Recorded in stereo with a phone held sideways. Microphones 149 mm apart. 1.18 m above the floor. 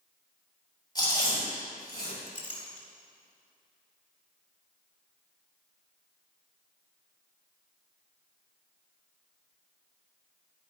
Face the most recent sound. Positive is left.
turn(degrees=60)  # may be behind; listen again after turning